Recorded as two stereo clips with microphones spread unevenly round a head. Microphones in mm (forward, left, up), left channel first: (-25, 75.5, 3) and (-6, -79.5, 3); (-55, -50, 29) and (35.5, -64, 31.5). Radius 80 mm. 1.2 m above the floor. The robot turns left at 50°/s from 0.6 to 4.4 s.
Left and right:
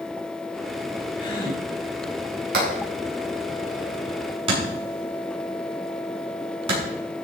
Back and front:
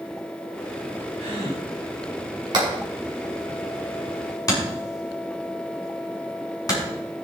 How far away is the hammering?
About 6.5 m.